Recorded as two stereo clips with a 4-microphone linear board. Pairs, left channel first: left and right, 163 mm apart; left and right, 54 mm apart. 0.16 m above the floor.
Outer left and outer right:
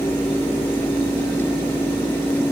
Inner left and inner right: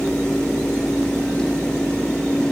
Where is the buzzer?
I don't hear a buzzer.